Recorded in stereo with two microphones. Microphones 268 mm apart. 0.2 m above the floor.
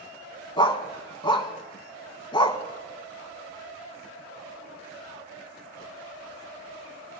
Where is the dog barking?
20° left (ahead or behind), 0.7 m.